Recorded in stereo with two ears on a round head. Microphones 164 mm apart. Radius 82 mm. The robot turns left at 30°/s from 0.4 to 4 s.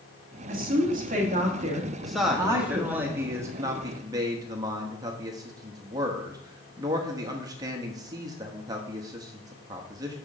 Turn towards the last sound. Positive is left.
turn(degrees=-20)  # may be behind; listen again after turning